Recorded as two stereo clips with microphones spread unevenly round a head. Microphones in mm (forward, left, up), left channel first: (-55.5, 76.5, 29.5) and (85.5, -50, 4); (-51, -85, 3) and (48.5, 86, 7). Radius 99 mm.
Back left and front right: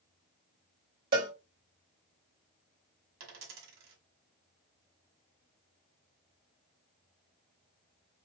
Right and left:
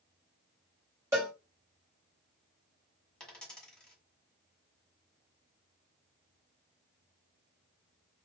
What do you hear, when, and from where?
1.1 s a cowbell: 15° right, 1.8 m
3.2 s a dropped coin: 35° right, 1.7 m